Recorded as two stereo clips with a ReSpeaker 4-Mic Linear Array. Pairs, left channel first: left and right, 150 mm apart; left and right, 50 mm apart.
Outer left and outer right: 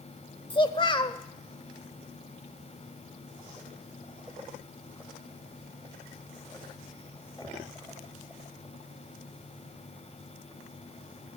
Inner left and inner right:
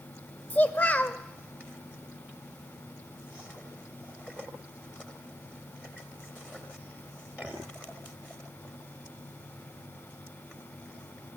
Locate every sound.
0.5 s a child speaking: 35° left (ahead or behind), 0.8 m